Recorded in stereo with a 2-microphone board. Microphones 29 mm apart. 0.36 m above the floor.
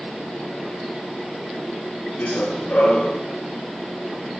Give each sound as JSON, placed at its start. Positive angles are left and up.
{"t": 2.2, "sound": "running footsteps", "side_deg": 85, "distance_m": 7.5}